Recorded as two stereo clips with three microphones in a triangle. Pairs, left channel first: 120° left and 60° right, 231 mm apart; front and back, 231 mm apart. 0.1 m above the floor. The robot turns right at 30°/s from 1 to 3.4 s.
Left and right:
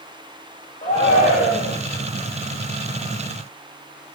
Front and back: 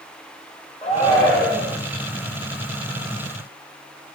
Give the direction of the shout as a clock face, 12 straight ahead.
10 o'clock.